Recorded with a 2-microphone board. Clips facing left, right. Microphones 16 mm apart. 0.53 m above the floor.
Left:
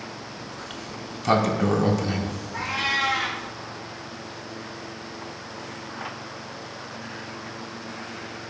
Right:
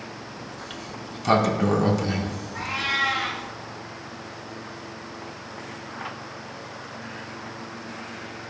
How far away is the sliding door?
About 0.7 m.